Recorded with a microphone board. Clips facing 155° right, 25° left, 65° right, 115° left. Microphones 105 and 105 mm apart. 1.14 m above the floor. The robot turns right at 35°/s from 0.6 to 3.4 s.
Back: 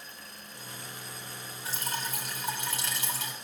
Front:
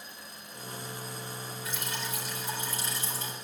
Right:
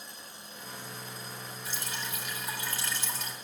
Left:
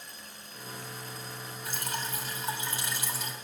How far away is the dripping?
About 4 m.